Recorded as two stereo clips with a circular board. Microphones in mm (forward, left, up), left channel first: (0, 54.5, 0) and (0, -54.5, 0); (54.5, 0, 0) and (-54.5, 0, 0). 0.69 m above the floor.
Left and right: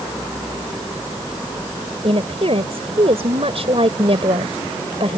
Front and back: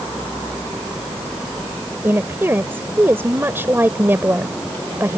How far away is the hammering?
I don't hear hammering.